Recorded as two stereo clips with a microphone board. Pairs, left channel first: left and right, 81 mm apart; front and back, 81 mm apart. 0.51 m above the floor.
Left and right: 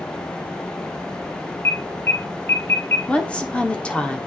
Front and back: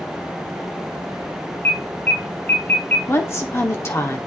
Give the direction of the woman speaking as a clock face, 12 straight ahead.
11 o'clock.